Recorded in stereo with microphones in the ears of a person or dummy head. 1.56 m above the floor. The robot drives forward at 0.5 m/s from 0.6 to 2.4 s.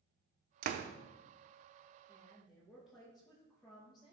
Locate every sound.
0.6 s a door slam: 45° right (ahead or behind), 0.6 m; by 0.9 s 40° right (ahead or behind), 0.7 m
2.1 s a woman speaking: 5° right (ahead or behind), 2.5 m